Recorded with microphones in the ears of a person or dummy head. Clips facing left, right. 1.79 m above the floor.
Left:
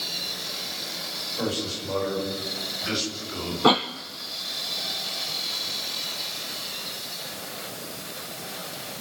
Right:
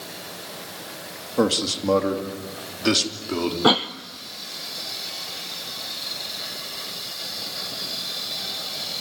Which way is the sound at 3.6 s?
5° right (ahead or behind).